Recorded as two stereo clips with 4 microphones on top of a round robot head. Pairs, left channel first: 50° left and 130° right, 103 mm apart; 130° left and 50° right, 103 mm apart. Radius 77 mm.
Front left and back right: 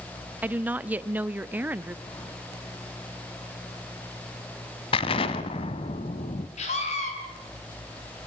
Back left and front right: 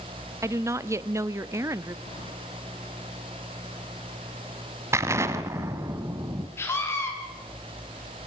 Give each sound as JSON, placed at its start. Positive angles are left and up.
{"t": 0.4, "sound": "a woman speaking", "azimuth_deg": -70, "distance_m": 0.7}
{"t": 2.1, "sound": "keys jangling", "azimuth_deg": 105, "distance_m": 5.0}
{"t": 4.9, "sound": "an explosion", "azimuth_deg": 15, "distance_m": 1.3}
{"t": 6.6, "sound": "a scream", "azimuth_deg": 60, "distance_m": 6.5}